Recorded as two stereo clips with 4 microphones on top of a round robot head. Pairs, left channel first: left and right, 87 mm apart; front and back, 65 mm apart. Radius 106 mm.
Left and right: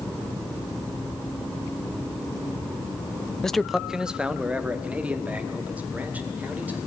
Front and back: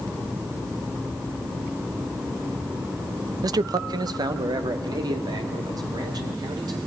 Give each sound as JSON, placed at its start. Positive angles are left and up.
{"t": 3.4, "sound": "a man speaking", "azimuth_deg": 175, "distance_m": 0.5}